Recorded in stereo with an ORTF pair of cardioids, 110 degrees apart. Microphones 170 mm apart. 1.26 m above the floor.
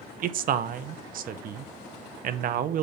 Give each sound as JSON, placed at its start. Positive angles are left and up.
{"t": 0.2, "sound": "a man speaking", "azimuth_deg": -60, "distance_m": 0.7}